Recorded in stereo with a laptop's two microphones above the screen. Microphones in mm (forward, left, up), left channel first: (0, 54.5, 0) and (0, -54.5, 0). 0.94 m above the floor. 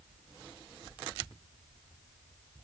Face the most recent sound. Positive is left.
No sound to turn to.